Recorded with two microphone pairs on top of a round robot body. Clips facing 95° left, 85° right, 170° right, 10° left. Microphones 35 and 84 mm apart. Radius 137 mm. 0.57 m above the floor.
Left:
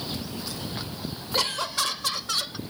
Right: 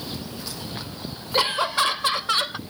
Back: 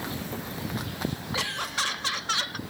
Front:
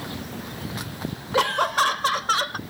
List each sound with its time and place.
1.3 s laughter: 20° right; by 2.6 s 35° right